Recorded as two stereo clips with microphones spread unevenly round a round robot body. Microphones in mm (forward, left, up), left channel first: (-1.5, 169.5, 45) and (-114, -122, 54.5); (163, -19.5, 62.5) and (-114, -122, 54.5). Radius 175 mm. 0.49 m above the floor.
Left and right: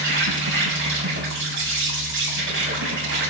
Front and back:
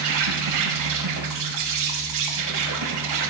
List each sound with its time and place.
0.0 s an insect: 165° right, 6 m